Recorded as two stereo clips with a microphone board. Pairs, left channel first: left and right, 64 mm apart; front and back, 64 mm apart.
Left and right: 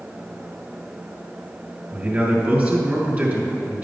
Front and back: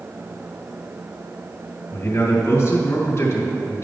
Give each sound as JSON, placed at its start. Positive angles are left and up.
{"t": 1.9, "sound": "a man speaking", "azimuth_deg": -35, "distance_m": 2.5}